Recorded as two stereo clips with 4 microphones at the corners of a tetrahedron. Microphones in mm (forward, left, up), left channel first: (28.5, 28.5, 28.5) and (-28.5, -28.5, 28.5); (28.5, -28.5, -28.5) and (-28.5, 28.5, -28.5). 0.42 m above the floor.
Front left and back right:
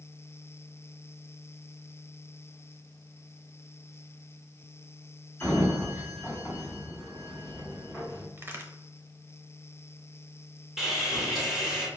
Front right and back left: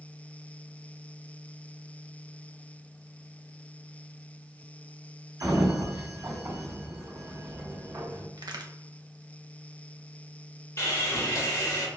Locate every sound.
5.4 s a sliding door: 125° left, 1.6 m
8.4 s a crack: 160° left, 0.5 m
10.8 s sawing: 55° right, 1.2 m